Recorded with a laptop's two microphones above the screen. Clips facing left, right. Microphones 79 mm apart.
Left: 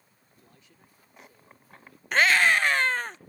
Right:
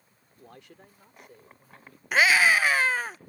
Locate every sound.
0.4 s a man speaking: 80° right; by 2.0 s 45° right (ahead or behind)
2.1 s a scream: 5° right (ahead or behind)